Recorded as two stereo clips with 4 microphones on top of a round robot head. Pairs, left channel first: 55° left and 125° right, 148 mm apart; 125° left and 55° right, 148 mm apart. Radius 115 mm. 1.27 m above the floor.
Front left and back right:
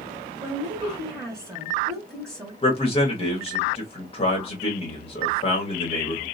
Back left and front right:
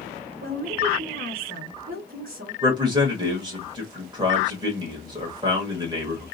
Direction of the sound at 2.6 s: 5° left.